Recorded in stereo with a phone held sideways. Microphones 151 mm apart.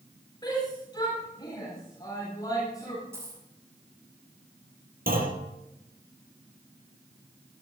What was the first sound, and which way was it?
A shout, 25° left (ahead or behind).